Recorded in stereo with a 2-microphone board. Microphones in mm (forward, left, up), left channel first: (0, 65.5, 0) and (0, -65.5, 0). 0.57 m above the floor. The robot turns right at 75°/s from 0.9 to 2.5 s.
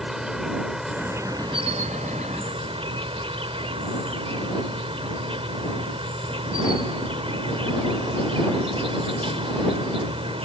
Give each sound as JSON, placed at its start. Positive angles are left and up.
{"t": 0.0, "sound": "an insect", "azimuth_deg": -175}